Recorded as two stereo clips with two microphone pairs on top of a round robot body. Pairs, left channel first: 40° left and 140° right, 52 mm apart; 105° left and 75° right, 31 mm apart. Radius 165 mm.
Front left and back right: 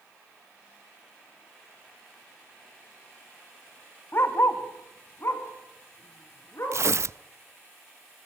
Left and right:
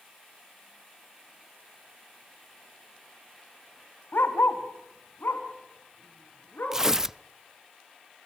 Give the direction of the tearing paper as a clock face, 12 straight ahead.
5 o'clock.